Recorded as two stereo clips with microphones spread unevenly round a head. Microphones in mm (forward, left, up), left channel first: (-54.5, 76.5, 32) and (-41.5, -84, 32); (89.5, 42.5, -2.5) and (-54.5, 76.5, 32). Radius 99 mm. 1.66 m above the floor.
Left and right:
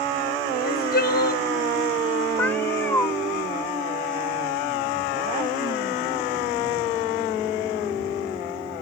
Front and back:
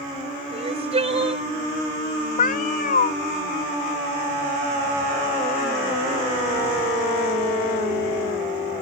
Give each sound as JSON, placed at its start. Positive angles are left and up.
{"t": 0.5, "sound": "crying", "azimuth_deg": 120}
{"t": 2.4, "sound": "a cat meowing", "azimuth_deg": 15}